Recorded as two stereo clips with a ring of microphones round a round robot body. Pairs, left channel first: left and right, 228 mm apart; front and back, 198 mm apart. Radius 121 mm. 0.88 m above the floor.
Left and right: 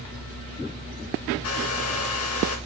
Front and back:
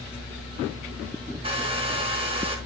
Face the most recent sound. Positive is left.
turn(degrees=120)